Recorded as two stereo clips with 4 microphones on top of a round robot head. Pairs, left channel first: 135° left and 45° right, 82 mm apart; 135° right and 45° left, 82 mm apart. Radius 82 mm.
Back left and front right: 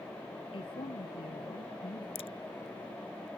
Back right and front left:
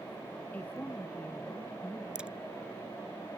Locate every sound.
0.5 s a woman speaking: 155° left
2.1 s a crack: 125° left